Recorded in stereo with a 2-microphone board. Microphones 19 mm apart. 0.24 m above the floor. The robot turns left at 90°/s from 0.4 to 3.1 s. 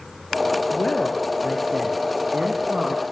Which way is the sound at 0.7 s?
60° left (ahead or behind).